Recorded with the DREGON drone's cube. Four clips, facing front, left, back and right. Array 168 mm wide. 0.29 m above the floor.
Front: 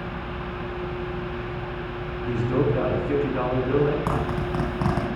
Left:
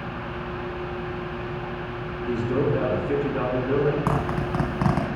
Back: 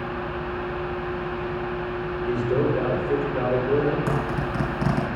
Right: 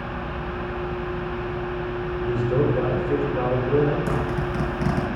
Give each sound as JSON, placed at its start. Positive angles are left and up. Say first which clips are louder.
{"t": 2.2, "sound": "a man speaking", "louder": "right 1 dB, even", "azimuth_deg": 10, "distance_m": 3.0}
{"t": 4.1, "sound": "a zipper", "louder": "even, even", "azimuth_deg": 55, "distance_m": 2.5}